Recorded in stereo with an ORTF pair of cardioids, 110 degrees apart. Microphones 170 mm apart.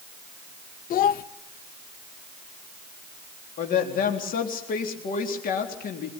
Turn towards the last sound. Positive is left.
turn(degrees=55)